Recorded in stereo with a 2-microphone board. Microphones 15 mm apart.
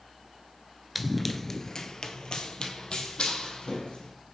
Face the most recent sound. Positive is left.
turn(degrees=70)  # may be behind; listen again after turning